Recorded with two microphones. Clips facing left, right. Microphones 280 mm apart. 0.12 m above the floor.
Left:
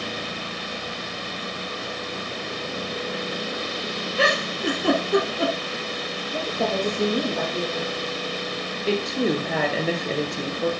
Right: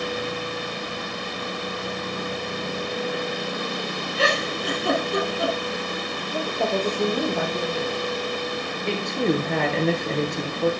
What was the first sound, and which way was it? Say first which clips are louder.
A giggle: even; 65° left (ahead or behind).